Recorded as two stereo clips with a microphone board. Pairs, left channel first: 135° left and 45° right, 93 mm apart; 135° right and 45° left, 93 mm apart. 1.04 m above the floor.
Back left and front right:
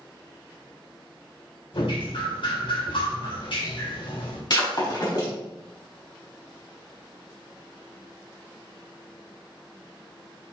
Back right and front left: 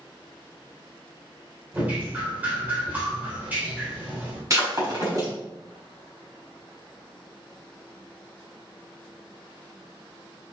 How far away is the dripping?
About 3.5 m.